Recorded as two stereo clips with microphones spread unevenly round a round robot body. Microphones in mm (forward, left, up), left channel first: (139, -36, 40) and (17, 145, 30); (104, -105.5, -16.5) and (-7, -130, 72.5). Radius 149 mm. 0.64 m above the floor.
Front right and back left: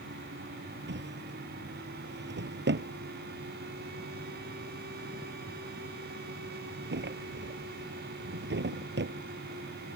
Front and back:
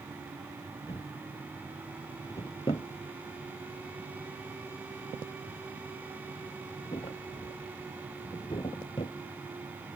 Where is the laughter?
I don't hear laughter.